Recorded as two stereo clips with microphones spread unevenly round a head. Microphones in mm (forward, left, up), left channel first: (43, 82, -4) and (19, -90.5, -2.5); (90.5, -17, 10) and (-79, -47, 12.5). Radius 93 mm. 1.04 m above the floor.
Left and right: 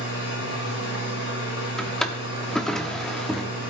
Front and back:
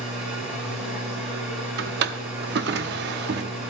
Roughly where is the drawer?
Behind.